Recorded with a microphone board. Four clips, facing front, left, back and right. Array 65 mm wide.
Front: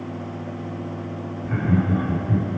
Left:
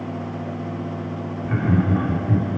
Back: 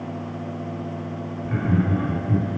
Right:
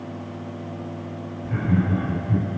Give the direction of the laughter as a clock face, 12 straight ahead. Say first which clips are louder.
Left 2 dB, front 1 dB; 9 o'clock.